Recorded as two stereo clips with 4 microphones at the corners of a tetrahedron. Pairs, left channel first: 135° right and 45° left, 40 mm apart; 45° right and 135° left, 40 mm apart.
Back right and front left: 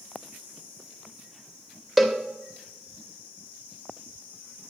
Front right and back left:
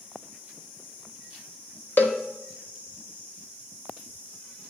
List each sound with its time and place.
2.0 s a cowbell: 35° right, 0.8 m